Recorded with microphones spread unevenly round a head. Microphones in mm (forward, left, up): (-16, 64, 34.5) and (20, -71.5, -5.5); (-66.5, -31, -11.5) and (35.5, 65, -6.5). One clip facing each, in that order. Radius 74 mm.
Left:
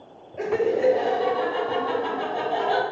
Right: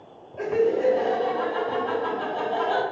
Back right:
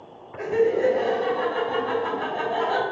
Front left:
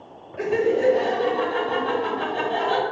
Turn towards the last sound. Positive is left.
turn(degrees=15)